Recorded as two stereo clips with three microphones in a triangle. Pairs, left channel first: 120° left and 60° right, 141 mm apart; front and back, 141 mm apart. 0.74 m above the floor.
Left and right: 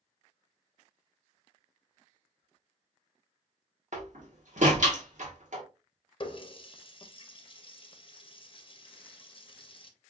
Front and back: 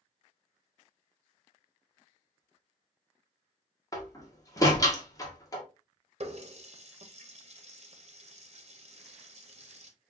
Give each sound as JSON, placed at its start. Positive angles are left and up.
{"t": 3.9, "sound": "a door slam", "azimuth_deg": -65, "distance_m": 1.3}
{"t": 6.2, "sound": "a running tap", "azimuth_deg": 160, "distance_m": 0.7}